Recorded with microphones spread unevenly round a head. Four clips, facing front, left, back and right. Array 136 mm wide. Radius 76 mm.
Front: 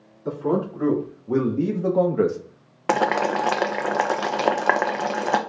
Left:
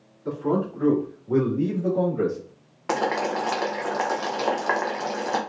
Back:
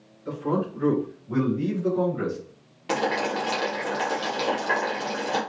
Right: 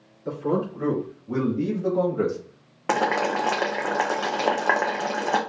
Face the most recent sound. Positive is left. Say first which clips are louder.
# right 2 dB, front 5 dB
turn(degrees=-35)